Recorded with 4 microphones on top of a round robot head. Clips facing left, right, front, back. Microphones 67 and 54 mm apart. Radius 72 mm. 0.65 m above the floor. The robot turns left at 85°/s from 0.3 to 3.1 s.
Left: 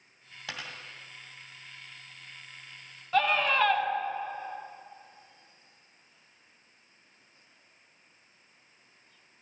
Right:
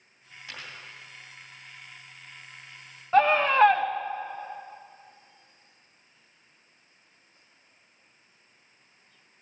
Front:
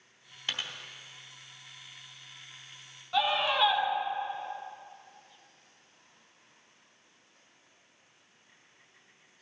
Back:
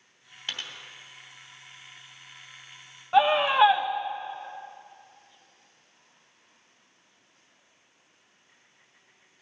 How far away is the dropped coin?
About 1.9 m.